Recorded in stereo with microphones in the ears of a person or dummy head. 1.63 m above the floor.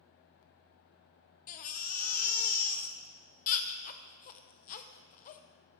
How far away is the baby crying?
About 0.6 m.